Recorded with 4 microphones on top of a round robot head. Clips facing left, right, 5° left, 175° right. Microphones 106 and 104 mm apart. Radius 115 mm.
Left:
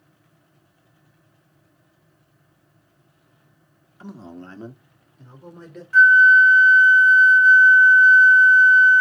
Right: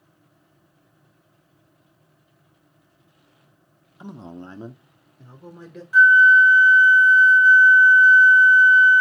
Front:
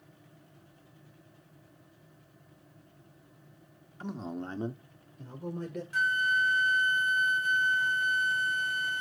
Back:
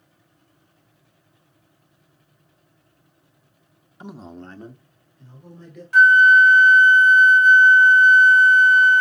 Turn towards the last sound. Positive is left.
turn(degrees=-165)